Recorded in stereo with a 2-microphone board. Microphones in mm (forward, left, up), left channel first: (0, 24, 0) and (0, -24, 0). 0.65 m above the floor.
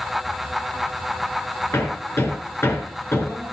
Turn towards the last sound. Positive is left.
turn(degrees=60)  # may be behind; listen again after turning